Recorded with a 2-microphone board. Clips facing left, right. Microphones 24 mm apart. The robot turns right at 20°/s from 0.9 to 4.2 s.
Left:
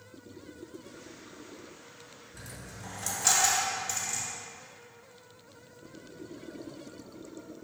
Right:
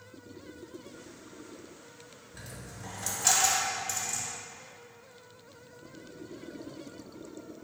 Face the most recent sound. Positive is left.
turn(degrees=20)  # may be behind; listen again after turning